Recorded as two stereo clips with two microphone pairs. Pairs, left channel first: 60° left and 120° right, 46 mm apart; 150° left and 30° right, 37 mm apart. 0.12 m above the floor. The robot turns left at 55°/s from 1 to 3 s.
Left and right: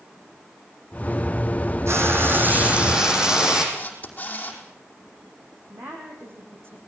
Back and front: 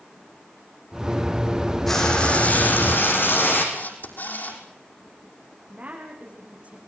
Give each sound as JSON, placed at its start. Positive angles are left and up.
{"t": 1.9, "sound": "frying", "azimuth_deg": -130, "distance_m": 6.0}
{"t": 3.8, "sound": "a camera shutter", "azimuth_deg": 115, "distance_m": 5.0}
{"t": 5.7, "sound": "a woman speaking", "azimuth_deg": -85, "distance_m": 7.5}